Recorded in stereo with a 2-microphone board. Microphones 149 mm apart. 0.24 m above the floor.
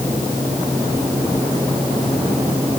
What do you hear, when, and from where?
Only background noise.